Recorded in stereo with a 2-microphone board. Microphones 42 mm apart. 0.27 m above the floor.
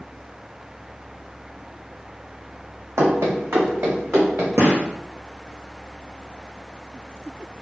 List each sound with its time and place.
3.0 s running footsteps: 80° right, 1.0 m; by 4.5 s 55° right (ahead or behind), 1.6 m
4.6 s a gunshot: 65° right (ahead or behind), 1.8 m